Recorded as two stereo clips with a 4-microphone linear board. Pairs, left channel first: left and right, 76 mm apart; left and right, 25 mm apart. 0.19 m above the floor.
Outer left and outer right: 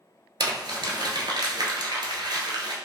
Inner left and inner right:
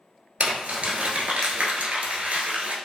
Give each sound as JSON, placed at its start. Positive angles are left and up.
{"t": 0.4, "sound": "crumpling", "side_deg": -75, "distance_m": 0.7}